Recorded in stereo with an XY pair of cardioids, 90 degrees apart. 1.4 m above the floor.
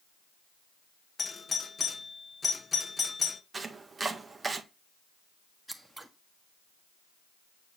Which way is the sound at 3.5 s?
30° right.